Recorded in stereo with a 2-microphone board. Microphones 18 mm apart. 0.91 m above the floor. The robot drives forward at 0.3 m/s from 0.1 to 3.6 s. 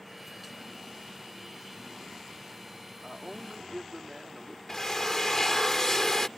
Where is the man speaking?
35° right (ahead or behind); by 4.6 s 30° right (ahead or behind).